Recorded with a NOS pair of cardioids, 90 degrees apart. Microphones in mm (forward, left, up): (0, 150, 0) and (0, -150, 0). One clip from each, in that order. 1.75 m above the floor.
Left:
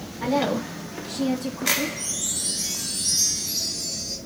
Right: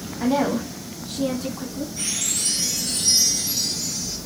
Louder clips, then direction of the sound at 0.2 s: Right 1 dB; 55° right.